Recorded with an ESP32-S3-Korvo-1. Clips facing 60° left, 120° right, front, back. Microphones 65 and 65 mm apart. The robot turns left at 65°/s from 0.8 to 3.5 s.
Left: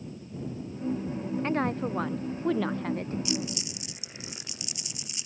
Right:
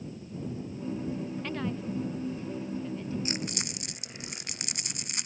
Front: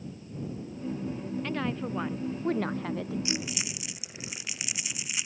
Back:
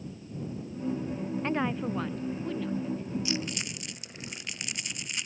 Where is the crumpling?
70° right; by 5.3 s 85° right.